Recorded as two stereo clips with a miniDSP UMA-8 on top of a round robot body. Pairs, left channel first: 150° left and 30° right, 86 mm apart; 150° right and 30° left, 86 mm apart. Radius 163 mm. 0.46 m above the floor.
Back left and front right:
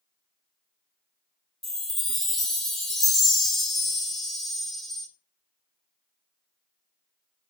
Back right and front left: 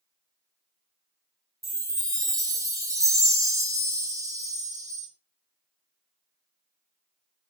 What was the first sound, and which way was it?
A chime, 65° left.